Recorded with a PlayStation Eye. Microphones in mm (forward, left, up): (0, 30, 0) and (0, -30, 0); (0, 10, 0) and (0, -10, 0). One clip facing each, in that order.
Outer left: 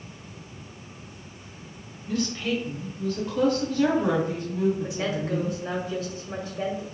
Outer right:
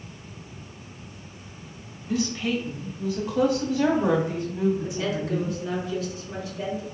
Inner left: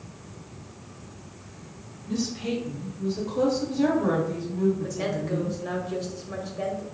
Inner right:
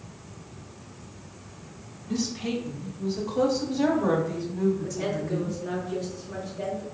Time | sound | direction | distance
2.1 | a woman speaking | 5° right (ahead or behind) | 1.3 m
4.8 | a woman speaking | 40° left (ahead or behind) | 1.3 m